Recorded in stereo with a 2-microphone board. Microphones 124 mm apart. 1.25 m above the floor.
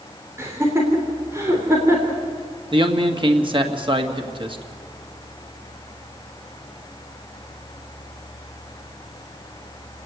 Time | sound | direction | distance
0.4 | laughter | 25° right (ahead or behind) | 3.5 m
2.7 | a man speaking | 40° right (ahead or behind) | 1.9 m